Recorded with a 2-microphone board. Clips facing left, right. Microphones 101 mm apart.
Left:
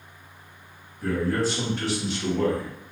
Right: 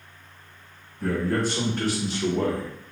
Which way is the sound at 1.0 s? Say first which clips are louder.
Even; 60° right (ahead or behind).